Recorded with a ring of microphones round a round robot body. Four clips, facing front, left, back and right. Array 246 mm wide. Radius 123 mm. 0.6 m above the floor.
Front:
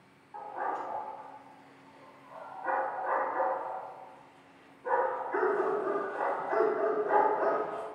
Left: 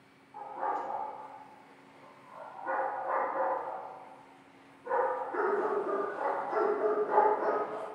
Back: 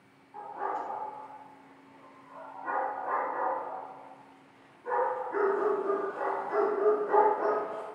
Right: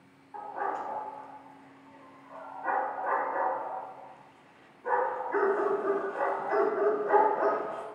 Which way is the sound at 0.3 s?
65° right.